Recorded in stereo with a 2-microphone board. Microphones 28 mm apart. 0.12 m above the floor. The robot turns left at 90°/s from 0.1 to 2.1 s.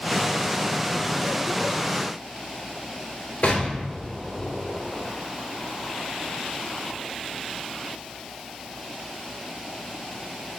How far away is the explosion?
About 0.9 m.